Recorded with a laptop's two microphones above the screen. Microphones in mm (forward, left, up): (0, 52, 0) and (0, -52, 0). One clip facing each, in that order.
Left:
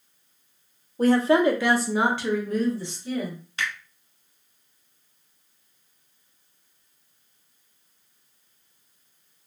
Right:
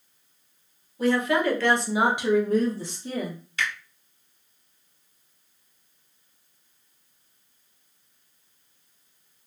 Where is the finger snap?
30° left (ahead or behind), 1.8 m.